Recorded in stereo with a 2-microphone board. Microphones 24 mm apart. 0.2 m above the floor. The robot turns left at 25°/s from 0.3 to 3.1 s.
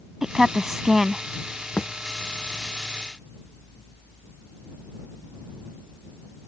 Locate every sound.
0.2 s a woman speaking: 20° right (ahead or behind); by 1.2 s 5° right (ahead or behind)
1.8 s a thud: 75° left (ahead or behind); by 1.9 s 70° left (ahead or behind)